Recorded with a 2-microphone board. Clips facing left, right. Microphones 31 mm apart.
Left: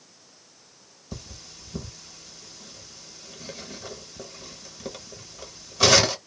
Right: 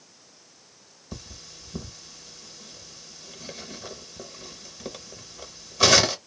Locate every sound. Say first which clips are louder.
1.1 s cutlery clinking: left 1 dB; centre (ahead or behind), 0.8 m